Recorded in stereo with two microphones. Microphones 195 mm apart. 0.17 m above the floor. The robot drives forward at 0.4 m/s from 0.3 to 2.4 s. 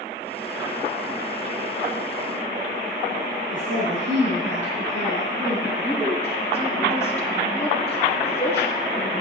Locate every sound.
3.5 s a woman speaking: 65° right (ahead or behind), 5.5 m
5.7 s a woman speaking: 15° left (ahead or behind), 3.5 m